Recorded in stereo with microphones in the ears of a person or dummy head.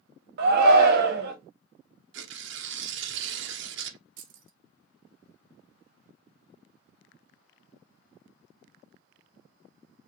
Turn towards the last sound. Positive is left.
turn(degrees=-50)  # may be behind; listen again after turning